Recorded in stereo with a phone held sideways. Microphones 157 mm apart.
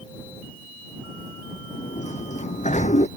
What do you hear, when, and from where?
1.7 s a sliding door: 55° left (ahead or behind)